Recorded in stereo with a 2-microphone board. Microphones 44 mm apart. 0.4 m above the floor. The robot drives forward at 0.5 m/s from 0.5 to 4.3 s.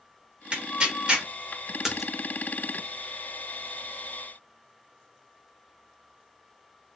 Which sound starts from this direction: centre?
A splash, at 1.8 s.